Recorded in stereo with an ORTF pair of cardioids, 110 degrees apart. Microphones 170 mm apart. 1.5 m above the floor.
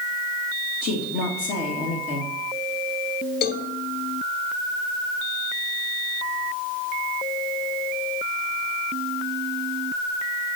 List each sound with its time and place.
0.8 s a woman speaking: 65° left, 2.0 m
3.4 s a cowbell: 65° left, 0.7 m